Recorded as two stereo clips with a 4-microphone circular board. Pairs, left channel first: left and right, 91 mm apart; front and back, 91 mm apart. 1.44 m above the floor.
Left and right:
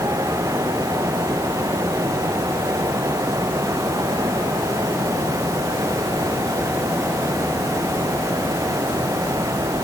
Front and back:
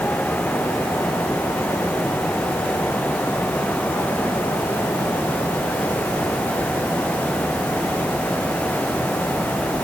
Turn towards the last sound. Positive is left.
No sound to turn to.